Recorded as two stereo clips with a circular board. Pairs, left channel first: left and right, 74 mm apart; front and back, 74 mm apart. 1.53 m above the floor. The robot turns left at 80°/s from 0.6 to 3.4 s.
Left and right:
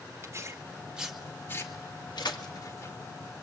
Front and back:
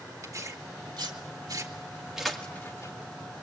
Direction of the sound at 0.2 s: 140° right.